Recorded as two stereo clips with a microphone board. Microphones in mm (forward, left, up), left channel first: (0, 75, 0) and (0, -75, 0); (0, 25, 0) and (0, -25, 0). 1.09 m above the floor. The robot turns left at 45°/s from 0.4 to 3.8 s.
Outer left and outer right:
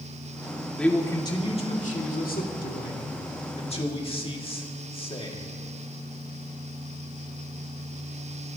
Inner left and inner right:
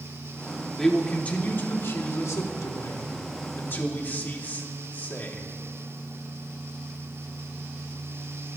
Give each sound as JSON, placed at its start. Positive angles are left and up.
{"t": 0.8, "sound": "a man speaking", "azimuth_deg": 175, "distance_m": 1.9}